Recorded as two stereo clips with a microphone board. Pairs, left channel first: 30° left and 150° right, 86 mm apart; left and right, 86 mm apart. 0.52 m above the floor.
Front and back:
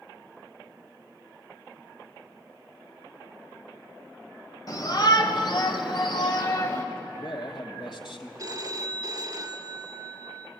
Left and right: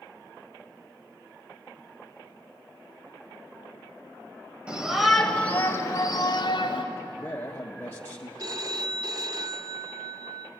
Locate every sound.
4.7 s a shout: 10° right, 2.5 m; by 6.8 s 75° left, 2.5 m
6.9 s a man speaking: 25° left, 2.5 m
8.4 s a phone ringing: 115° right, 1.4 m